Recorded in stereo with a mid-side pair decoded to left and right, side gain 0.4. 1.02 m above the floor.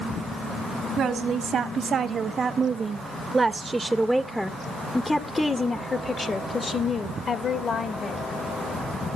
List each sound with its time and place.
1.0 s a woman speaking: 65° right, 2.5 m; by 8.2 s 60° left, 3 m